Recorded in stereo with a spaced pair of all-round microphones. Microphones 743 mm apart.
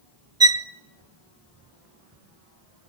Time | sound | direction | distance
0.4 | a violin | 20° right (ahead or behind) | 0.9 m